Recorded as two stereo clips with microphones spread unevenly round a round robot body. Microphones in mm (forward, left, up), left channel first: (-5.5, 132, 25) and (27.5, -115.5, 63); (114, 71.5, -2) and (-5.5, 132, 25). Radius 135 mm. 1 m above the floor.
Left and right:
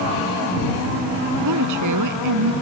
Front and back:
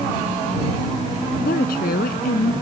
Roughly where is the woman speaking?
Ahead right.